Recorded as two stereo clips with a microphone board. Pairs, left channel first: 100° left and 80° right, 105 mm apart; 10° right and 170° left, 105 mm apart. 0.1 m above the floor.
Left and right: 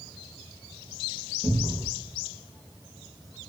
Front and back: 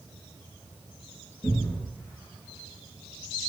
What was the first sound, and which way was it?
A cupboard door, straight ahead.